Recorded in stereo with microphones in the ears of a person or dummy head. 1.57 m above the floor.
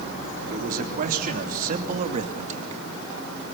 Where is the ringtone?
I don't hear a ringtone.